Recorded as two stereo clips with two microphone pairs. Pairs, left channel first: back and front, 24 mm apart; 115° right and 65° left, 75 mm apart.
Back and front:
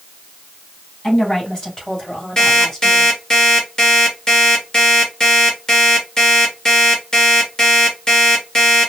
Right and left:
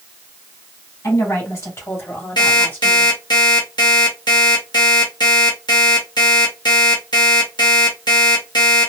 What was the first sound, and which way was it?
A woman speaking, 130° right.